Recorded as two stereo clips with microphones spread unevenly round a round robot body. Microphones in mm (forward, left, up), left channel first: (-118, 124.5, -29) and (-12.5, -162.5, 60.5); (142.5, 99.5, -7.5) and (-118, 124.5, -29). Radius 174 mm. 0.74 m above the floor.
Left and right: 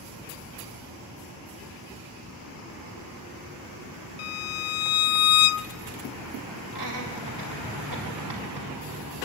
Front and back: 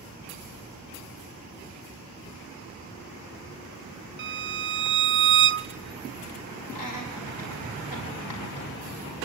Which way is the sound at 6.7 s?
25° right.